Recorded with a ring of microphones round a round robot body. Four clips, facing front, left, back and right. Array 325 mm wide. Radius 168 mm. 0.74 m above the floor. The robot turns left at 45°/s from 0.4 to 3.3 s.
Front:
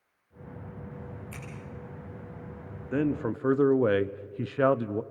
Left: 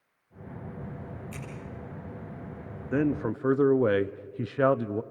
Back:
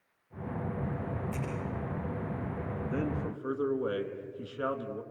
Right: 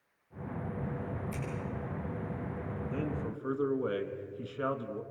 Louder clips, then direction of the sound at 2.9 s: Left 12 dB, front 8 dB; 65° left.